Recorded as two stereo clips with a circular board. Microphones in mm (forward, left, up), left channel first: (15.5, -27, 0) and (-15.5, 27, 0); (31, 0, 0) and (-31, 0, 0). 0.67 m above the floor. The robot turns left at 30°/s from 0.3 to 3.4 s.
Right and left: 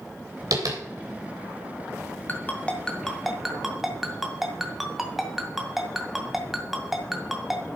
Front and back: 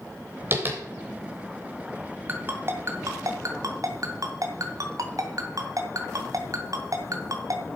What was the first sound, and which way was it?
Tapping, 130° left.